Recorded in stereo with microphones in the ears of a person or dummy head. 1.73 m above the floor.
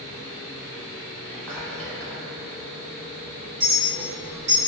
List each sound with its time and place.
1.2 s whispering: 5° left (ahead or behind), 0.9 m
3.6 s a clink: 25° right (ahead or behind), 2.0 m